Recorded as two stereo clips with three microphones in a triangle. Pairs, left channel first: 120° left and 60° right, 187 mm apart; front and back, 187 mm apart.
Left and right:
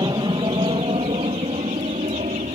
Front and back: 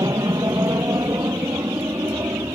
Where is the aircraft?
115° right; by 2.5 s 105° right.